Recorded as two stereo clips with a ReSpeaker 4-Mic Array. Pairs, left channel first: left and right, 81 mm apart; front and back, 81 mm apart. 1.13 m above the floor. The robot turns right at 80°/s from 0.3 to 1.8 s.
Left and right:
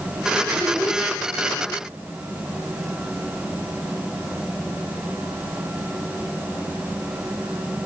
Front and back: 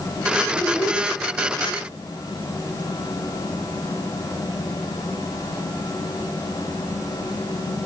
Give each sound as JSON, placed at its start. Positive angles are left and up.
{"t": 0.5, "sound": "a child speaking", "azimuth_deg": -45, "distance_m": 3.5}